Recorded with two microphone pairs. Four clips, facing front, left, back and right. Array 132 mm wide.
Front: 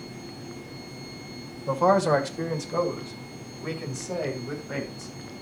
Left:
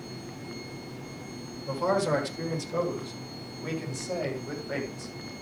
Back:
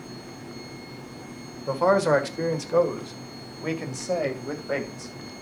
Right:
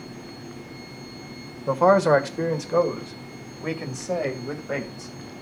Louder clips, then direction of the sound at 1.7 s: Right 9 dB, even; 100° right.